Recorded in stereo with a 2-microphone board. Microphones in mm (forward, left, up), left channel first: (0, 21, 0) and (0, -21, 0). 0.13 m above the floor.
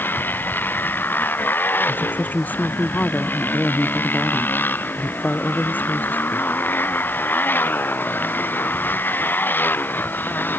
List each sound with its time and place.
0.0 s a motorcycle: 50° left (ahead or behind)
1.9 s a woman speaking: 45° left (ahead or behind)